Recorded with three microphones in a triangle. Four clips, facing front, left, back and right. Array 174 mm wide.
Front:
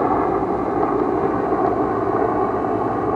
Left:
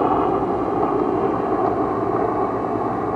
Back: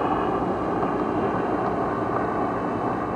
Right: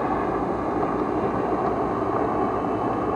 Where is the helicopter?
50° left; by 3.2 s 20° left.